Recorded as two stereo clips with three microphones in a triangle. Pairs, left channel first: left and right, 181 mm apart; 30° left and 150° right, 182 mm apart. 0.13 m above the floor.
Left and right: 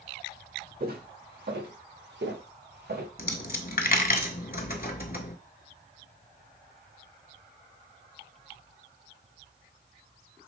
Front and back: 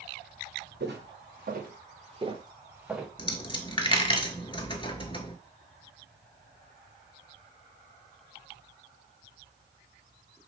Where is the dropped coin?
85° left, 0.6 m.